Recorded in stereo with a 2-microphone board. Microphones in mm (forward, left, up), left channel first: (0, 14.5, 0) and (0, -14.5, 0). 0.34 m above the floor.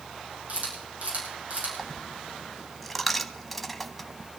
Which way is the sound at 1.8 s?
Centre (ahead or behind).